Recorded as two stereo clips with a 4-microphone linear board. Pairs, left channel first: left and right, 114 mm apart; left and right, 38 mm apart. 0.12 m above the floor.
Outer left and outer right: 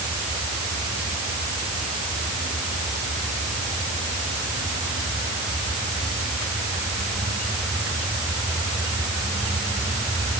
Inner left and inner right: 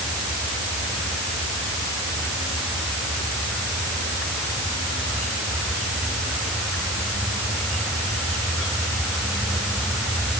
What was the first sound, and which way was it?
Only background noise.